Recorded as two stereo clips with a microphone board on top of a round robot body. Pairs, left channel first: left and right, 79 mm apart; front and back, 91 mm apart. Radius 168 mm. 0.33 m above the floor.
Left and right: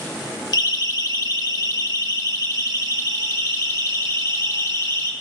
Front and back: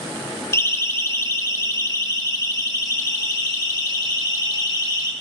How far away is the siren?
About 2.5 m.